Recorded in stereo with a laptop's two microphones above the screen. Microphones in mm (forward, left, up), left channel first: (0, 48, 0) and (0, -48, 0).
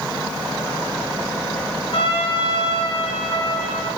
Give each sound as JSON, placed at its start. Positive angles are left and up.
{"t": 1.9, "sound": "a trumpet", "side_deg": 75, "distance_m": 2.0}